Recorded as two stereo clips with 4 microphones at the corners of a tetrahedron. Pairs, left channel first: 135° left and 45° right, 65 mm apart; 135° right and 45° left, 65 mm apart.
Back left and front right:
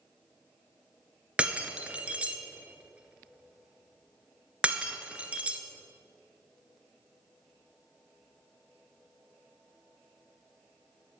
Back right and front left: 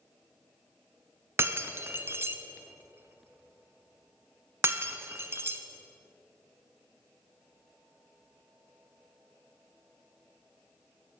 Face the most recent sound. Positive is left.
turn(degrees=20)